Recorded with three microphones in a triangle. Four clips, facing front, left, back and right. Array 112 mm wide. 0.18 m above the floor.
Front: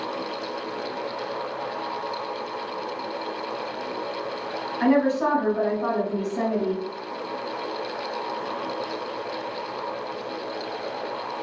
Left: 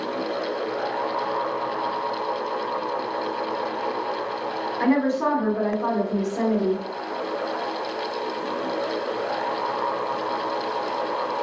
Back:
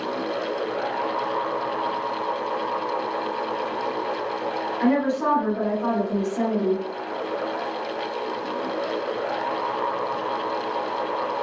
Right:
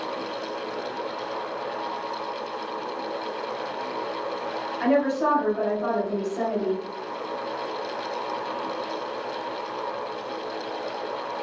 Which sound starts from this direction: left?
A woman speaking, at 4.8 s.